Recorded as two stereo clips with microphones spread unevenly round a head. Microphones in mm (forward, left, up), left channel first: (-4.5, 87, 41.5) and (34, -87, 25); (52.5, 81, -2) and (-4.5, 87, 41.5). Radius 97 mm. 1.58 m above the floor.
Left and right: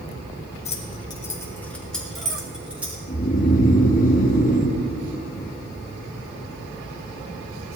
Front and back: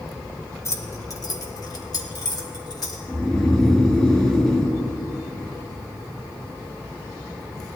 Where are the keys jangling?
55° left, 1.7 m; by 3.0 s 5° left, 3.5 m.